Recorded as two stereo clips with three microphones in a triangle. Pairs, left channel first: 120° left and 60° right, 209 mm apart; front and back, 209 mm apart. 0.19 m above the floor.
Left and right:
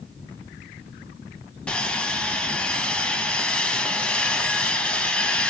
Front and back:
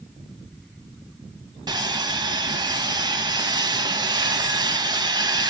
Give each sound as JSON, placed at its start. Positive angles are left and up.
{"t": 1.7, "sound": "sawing", "azimuth_deg": -165, "distance_m": 0.5}